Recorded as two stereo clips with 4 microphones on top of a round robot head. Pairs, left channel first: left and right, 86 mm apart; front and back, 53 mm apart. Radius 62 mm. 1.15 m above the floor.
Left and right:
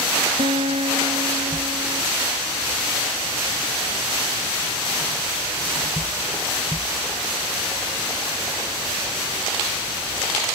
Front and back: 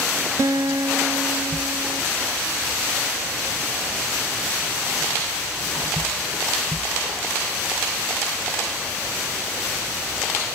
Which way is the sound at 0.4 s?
130° right.